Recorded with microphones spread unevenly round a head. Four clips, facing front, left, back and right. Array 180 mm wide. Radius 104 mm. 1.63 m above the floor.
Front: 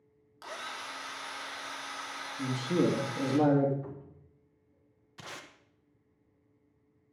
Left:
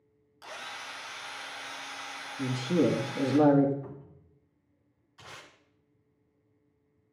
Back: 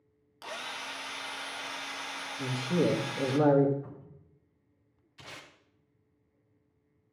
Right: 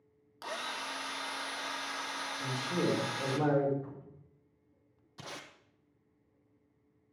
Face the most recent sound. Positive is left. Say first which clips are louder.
# right 3 dB, front 3 dB
turn(degrees=-60)